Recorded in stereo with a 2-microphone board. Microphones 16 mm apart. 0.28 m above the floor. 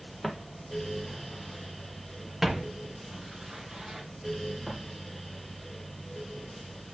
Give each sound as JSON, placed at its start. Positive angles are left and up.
{"t": 0.2, "sound": "footsteps", "side_deg": -5, "distance_m": 3.5}